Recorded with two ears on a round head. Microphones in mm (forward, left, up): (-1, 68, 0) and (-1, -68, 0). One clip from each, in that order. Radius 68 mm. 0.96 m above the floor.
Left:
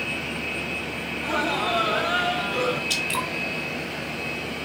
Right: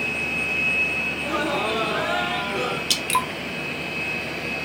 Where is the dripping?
80° right, 1.9 m.